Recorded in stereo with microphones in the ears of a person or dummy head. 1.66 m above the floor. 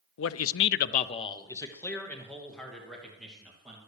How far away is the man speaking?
About 0.6 m.